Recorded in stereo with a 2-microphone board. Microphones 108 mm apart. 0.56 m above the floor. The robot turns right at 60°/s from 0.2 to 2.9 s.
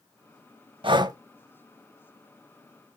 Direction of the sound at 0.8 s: 50° right (ahead or behind).